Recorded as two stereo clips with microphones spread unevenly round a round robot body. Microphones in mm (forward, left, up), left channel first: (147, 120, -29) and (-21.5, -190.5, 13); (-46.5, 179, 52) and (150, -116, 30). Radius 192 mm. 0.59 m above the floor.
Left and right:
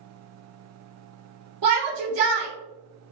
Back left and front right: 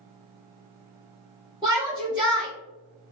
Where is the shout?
130° right, 1.0 m.